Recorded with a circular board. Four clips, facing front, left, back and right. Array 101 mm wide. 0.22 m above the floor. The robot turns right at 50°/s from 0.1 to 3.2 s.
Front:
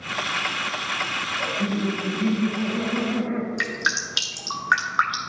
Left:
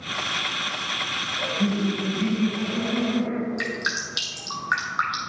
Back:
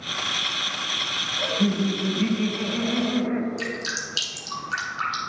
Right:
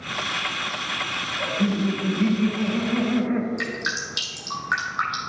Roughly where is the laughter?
Behind.